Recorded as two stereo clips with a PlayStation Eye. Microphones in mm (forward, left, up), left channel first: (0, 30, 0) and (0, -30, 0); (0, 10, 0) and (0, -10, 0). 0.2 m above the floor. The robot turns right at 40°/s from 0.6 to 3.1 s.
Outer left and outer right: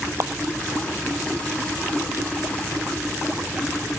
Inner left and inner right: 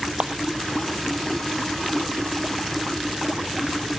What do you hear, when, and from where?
0.2 s a clap: 60° right (ahead or behind)